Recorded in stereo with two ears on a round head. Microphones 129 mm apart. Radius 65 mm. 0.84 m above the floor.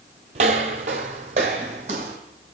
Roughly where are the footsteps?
Right.